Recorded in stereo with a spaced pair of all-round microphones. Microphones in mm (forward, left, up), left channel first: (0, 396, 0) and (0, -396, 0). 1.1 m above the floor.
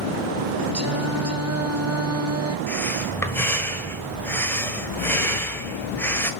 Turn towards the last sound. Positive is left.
turn(degrees=5)  # may be behind; listen again after turning